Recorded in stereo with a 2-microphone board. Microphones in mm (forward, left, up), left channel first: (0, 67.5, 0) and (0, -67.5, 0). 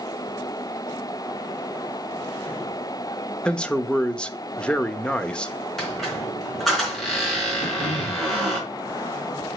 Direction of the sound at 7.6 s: 85° left.